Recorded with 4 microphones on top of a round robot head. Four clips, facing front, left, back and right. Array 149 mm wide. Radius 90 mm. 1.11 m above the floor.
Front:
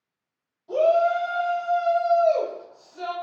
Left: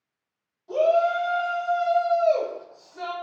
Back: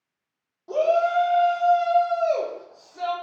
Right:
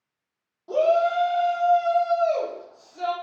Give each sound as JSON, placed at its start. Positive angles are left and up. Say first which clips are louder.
{"t": 0.7, "sound": "a shout", "louder": "even, front 1 dB", "azimuth_deg": -140, "distance_m": 1.3}